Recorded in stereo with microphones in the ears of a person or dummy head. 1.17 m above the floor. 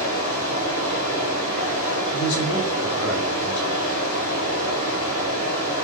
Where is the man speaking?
85° left, 0.9 m.